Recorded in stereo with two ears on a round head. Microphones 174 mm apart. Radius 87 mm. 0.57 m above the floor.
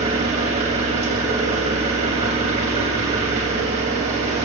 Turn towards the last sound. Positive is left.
turn(degrees=-35)  # may be behind; listen again after turning